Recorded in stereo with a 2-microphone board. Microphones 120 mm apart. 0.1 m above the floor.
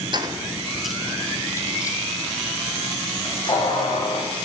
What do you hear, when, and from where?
0.1 s keys jangling: 40° right (ahead or behind), 1.1 m; by 4.4 s 45° left (ahead or behind), 4.5 m